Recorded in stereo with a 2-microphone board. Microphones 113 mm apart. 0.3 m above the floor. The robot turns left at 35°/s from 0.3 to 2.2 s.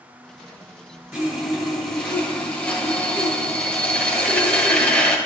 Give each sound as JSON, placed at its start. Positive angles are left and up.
{"t": 1.1, "sound": "sawing", "azimuth_deg": -170, "distance_m": 1.7}